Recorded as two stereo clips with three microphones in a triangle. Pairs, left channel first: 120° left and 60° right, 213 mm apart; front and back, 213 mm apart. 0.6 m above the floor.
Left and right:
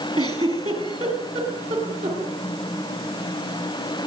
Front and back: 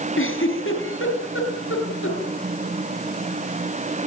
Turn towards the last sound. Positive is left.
turn(degrees=0)